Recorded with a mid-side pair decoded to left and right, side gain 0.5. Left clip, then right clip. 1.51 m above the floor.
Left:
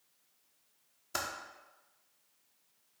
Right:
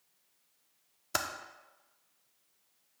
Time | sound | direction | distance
1.1 | typing on a keyboard | 45° right | 0.6 m